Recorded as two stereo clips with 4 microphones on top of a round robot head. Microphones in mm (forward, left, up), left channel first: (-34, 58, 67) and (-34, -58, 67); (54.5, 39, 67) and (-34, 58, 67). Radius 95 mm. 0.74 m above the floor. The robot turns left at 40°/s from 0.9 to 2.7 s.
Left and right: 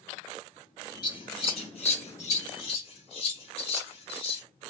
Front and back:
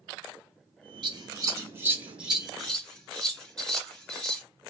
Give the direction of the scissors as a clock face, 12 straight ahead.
7 o'clock.